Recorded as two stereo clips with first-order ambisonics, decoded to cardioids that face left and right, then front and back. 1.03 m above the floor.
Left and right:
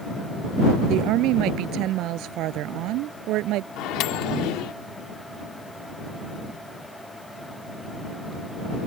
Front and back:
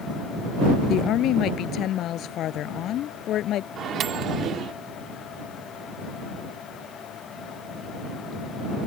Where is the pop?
No pop in this recording.